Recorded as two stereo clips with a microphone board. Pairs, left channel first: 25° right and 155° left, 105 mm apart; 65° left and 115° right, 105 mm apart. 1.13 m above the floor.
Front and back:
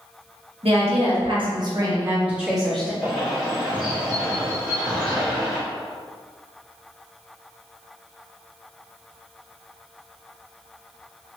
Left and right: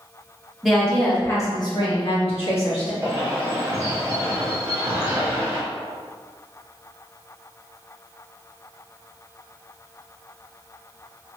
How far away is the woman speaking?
About 1.2 m.